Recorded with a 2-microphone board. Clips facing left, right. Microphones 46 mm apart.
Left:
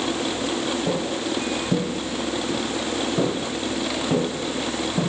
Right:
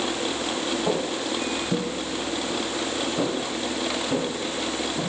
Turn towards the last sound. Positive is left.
turn(degrees=45)  # may be behind; listen again after turning